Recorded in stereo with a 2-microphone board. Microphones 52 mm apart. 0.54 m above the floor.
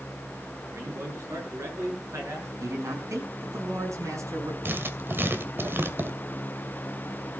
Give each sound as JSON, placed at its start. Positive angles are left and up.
{"t": 0.7, "sound": "a man speaking", "side_deg": -70, "distance_m": 8.0}
{"t": 2.6, "sound": "a man speaking", "side_deg": -80, "distance_m": 5.5}
{"t": 4.7, "sound": "writing", "side_deg": -45, "distance_m": 2.0}